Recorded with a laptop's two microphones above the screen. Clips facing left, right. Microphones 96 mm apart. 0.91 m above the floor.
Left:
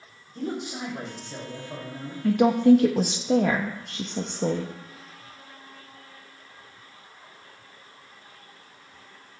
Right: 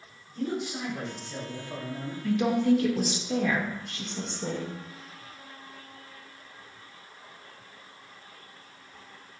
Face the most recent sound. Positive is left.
turn(degrees=50)  # may be behind; listen again after turning